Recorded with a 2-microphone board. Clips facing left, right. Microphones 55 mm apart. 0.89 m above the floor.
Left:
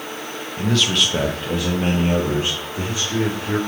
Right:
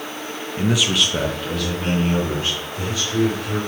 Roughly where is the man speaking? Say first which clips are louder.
Even; right.